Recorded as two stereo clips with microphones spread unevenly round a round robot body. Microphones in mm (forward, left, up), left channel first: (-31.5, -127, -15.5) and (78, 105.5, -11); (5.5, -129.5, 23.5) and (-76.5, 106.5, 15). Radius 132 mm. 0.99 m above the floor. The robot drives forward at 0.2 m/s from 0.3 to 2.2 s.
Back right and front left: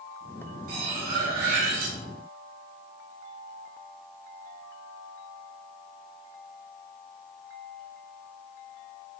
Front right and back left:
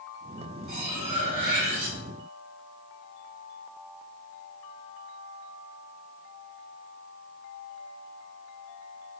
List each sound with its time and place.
0.7 s cutlery clinking: 80° left, 0.8 m; by 2.0 s 100° left, 0.8 m